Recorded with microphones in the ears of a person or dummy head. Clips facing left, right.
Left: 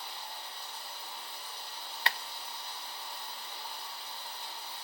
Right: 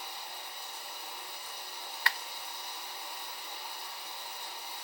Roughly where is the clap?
Left.